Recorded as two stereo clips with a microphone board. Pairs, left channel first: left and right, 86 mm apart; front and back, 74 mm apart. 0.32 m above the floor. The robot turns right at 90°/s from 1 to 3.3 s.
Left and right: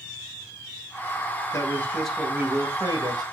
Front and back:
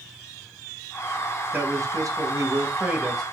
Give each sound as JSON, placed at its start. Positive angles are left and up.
{"t": 1.5, "sound": "a man speaking", "azimuth_deg": 125, "distance_m": 2.5}